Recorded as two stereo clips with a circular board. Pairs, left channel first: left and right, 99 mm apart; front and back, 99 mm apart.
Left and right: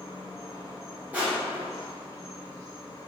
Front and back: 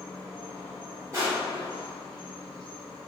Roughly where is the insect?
Left.